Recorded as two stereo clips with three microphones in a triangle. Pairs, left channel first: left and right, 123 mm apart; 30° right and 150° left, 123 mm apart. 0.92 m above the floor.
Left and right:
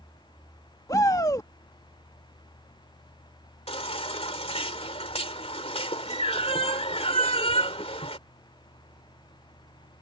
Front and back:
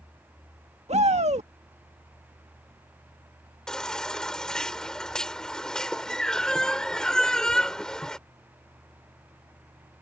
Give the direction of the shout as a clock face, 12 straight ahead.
7 o'clock.